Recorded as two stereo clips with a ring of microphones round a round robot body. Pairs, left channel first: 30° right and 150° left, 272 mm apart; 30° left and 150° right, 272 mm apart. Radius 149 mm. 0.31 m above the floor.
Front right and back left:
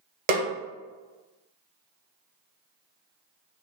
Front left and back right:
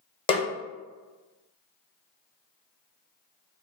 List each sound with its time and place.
0.3 s a snare drum: 100° left, 0.7 m